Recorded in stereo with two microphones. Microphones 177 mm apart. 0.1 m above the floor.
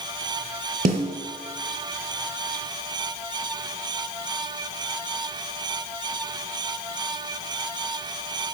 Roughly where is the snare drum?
Right.